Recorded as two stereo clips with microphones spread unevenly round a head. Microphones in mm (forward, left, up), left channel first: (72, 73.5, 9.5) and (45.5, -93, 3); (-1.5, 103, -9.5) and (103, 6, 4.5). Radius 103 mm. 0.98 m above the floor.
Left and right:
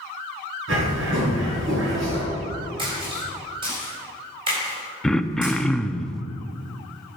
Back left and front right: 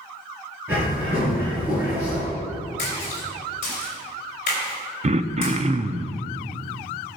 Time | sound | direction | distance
0.7 | a bird | 120° right | 3.5 m
2.8 | a splash | 165° right | 3.5 m
5.0 | throat clearing | 5° right | 0.6 m